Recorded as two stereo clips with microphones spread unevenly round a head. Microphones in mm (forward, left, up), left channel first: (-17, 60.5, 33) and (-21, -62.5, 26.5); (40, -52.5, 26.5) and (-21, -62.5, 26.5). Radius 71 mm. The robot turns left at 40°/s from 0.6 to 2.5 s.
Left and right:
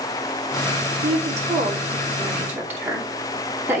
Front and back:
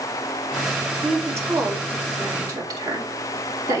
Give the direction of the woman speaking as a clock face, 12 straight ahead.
4 o'clock.